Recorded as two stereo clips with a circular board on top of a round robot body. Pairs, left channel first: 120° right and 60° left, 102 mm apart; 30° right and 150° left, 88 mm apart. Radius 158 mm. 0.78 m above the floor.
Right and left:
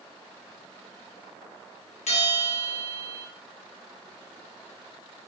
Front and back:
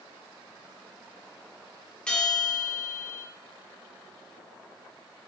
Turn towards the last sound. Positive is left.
turn(degrees=-110)